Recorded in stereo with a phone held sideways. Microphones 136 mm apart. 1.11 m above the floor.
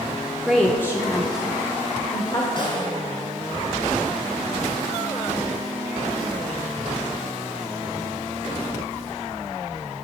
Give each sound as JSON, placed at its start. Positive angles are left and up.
{"t": 0.4, "sound": "a woman speaking", "side_deg": -5, "distance_m": 0.6}
{"t": 2.6, "sound": "a snare drum", "side_deg": 35, "distance_m": 3.0}